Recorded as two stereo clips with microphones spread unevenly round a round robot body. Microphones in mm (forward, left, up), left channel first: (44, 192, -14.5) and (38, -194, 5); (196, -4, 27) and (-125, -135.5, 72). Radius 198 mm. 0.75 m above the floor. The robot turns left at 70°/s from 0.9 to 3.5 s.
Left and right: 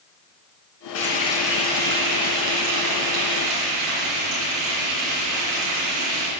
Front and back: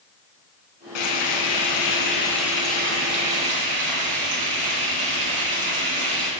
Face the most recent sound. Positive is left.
turn(degrees=-145)